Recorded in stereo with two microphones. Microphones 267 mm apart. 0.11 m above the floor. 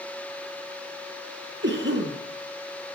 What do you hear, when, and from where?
1.6 s a cough: 45° right (ahead or behind), 2.5 m